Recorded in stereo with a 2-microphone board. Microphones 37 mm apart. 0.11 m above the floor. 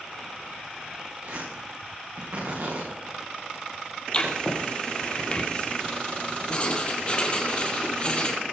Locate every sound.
1.2 s tearing paper: 75° right (ahead or behind), 7.5 m
4.1 s writing: 30° left (ahead or behind), 3 m